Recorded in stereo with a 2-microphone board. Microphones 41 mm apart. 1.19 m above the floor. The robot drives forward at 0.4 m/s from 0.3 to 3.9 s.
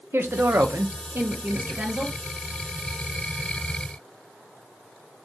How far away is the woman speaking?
About 0.5 m.